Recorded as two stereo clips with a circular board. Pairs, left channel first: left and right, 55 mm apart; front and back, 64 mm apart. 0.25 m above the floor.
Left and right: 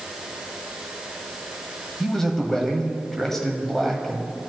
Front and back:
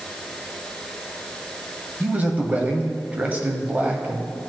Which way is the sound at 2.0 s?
160° left.